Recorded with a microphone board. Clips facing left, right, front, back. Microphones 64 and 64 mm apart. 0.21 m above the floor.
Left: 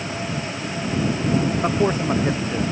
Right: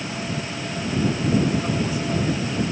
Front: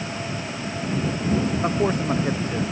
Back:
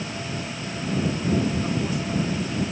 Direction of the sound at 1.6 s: 45° left.